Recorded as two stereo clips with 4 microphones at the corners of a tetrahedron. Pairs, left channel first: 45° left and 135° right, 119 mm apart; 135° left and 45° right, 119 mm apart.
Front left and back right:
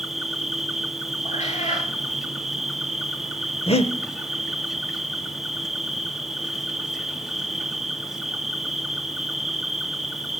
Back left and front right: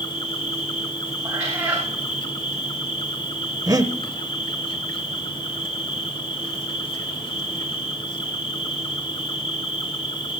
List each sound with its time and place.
0.0 s an insect: 140° left, 1.4 m
1.2 s a cat meowing: 30° left, 7.5 m
3.7 s breathing: 15° left, 0.8 m